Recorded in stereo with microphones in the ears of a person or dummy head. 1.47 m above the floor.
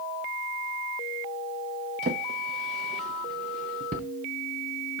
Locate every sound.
2.0 s a drawer: 30° right (ahead or behind), 0.9 m